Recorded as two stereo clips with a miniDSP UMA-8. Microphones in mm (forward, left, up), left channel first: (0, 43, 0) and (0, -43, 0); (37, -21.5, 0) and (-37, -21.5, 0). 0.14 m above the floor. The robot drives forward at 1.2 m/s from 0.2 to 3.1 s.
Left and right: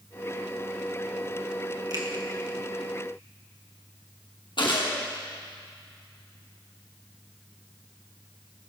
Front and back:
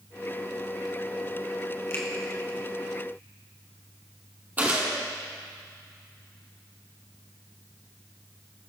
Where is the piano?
No piano in this recording.